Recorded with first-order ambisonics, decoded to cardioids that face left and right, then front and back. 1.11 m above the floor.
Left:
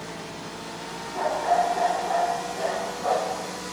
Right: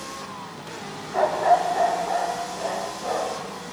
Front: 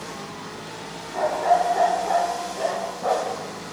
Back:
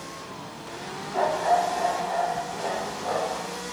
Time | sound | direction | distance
1.1 | a dog barking | 105° right | 0.9 m